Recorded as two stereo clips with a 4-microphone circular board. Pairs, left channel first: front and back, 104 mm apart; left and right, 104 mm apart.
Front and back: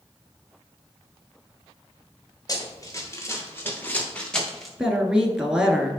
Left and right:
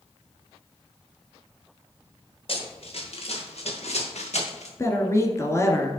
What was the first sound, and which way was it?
Running footsteps, 55° left.